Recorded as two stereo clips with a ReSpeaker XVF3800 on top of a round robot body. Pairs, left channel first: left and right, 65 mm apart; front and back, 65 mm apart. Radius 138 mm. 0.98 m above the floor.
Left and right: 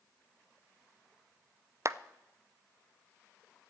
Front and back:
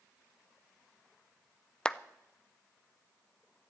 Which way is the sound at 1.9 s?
75° right.